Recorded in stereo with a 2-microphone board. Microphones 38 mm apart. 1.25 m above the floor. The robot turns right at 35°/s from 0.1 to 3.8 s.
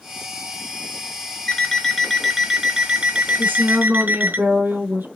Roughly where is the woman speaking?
Right.